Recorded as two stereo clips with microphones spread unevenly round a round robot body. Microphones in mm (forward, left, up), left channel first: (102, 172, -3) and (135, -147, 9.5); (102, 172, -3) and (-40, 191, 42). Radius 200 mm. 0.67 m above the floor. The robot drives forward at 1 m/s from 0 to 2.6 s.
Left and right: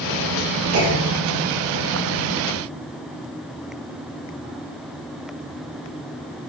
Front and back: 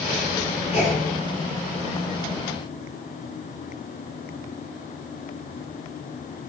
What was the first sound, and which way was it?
A clunk, 45° right.